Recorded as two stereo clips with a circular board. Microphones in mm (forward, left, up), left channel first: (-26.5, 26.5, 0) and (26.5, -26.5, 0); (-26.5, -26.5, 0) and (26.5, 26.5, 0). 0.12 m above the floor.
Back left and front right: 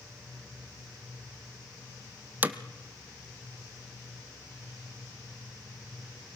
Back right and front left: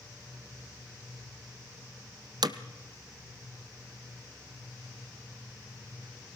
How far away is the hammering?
About 1.1 m.